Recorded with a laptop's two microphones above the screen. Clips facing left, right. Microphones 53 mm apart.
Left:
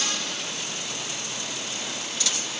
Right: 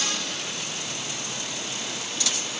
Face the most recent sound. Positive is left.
No sound to turn to.